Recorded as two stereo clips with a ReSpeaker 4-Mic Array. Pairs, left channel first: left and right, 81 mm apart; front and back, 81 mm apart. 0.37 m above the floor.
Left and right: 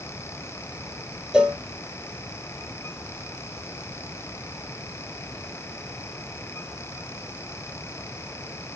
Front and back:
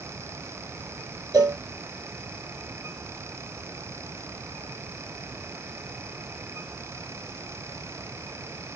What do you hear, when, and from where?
1.3 s a cowbell: 165° right, 0.9 m